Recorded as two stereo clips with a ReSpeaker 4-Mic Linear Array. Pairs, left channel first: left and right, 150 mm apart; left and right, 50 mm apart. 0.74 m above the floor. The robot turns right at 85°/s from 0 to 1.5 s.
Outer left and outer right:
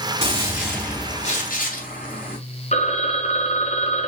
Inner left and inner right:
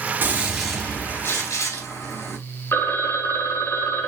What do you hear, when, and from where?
0.2 s a gunshot: 40° right, 4.5 m; by 2.4 s 70° left, 4.5 m
2.7 s a phone ringing: 50° left (ahead or behind), 1.7 m